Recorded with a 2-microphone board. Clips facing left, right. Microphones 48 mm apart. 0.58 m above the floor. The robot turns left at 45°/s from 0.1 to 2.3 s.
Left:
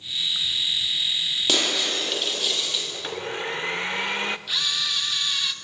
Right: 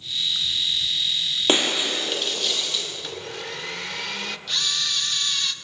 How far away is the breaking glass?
About 6 m.